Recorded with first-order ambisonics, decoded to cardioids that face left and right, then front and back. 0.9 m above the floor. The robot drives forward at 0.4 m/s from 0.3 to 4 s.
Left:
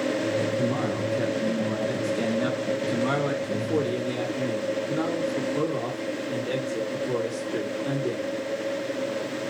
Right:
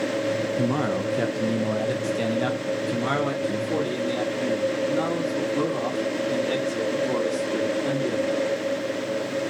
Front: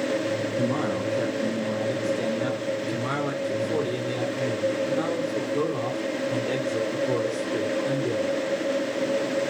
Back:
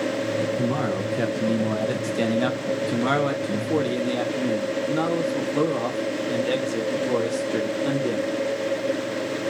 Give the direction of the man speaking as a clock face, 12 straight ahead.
3 o'clock.